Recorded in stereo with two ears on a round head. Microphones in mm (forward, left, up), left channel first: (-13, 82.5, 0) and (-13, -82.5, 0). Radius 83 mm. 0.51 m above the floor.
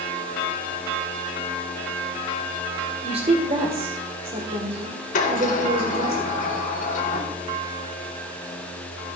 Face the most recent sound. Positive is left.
turn(degrees=45)  # may be behind; listen again after turning